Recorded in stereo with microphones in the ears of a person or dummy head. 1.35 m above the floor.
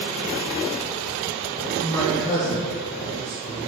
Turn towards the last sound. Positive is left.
turn(degrees=5)  # may be behind; listen again after turning